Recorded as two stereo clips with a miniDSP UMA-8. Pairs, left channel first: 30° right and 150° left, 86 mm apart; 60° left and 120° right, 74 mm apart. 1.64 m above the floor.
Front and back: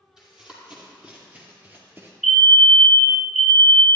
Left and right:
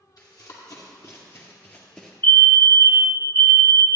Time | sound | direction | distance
0.2 | running footsteps | 70° left | 3 m
2.2 | a fire alarm | 60° left | 0.9 m